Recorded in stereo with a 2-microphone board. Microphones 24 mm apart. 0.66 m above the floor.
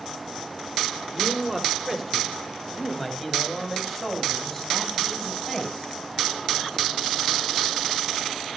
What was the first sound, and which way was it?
A man speaking, 20° right (ahead or behind).